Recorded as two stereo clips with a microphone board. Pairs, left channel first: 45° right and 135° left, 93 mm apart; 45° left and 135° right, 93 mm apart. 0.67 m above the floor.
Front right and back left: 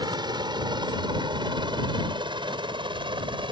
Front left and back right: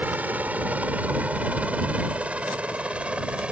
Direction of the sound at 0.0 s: 155° left.